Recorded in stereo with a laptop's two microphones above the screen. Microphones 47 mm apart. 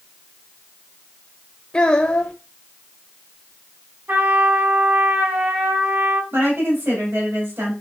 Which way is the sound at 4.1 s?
60° right (ahead or behind).